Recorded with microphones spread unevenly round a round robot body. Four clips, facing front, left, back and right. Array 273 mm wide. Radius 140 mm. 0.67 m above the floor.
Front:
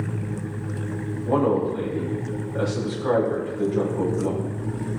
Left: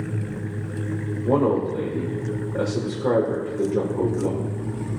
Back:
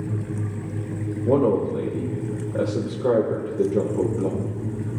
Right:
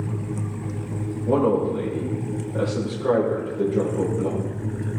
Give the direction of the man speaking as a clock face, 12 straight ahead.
7 o'clock.